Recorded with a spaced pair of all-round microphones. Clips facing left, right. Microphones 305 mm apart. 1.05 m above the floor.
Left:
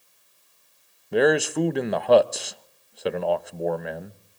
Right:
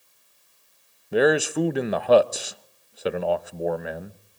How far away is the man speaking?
About 0.5 m.